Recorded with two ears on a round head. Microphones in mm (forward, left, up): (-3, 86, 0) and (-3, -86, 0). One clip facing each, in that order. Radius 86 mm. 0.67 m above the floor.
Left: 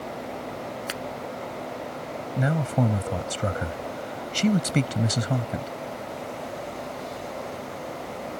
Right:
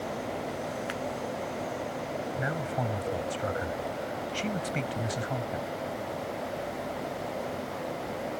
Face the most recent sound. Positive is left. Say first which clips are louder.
# left 11 dB
turn(degrees=60)  # may be behind; listen again after turning